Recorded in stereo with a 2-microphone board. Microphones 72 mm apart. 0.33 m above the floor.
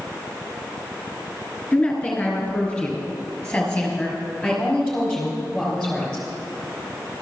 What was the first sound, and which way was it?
A woman speaking, 20° left (ahead or behind).